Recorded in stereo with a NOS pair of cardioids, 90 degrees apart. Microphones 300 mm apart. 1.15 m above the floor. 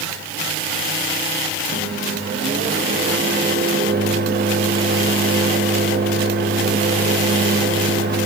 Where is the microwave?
35° right, 1.3 m.